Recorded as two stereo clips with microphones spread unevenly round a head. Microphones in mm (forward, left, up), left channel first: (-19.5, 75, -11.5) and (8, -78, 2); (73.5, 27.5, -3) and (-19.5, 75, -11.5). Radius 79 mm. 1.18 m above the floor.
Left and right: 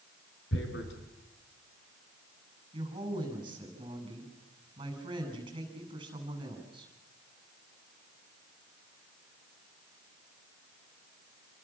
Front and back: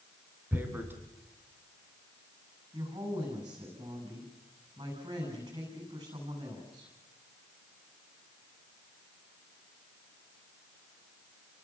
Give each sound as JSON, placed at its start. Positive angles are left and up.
{"t": 0.5, "sound": "tearing paper", "azimuth_deg": 80, "distance_m": 4.5}
{"t": 2.7, "sound": "a woman speaking", "azimuth_deg": -145, "distance_m": 9.0}